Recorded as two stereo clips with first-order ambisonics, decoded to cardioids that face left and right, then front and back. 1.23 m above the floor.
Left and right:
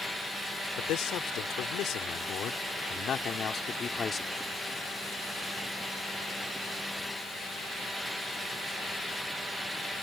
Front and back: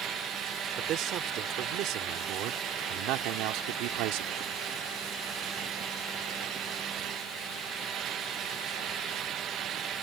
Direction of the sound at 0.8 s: 130° left.